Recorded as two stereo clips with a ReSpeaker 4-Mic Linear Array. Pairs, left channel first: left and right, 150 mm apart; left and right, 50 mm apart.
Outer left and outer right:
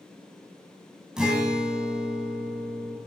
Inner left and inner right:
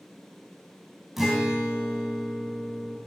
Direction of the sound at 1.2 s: 5° right (ahead or behind).